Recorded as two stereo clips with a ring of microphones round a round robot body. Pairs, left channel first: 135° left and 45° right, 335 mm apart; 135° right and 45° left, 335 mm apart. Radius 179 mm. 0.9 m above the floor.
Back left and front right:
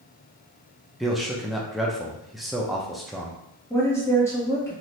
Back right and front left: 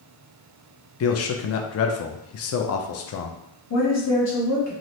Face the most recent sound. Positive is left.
turn(degrees=-145)